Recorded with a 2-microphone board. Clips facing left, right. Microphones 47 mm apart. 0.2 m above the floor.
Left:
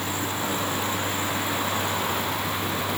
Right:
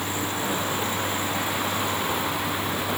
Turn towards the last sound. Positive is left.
No sound to turn to.